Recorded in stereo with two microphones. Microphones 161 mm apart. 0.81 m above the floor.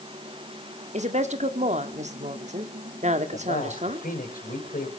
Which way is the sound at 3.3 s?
65° left (ahead or behind).